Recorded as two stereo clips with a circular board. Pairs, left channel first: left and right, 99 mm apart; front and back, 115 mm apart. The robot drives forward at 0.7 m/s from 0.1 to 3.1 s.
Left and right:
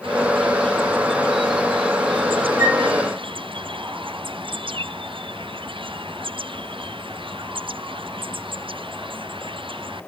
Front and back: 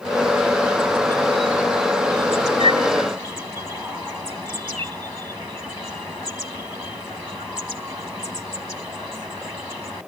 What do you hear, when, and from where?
2.6 s a flute: 145° right, 3.5 m; by 2.8 s 150° right, 4 m